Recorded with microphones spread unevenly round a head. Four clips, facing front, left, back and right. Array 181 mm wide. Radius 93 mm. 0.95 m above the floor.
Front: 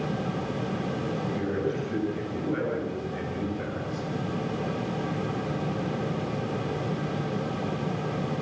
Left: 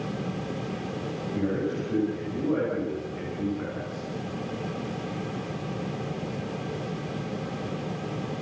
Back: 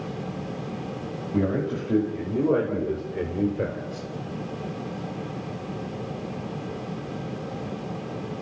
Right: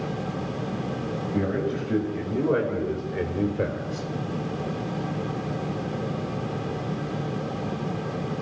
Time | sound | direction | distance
1.3 | a man speaking | 165° right | 6 m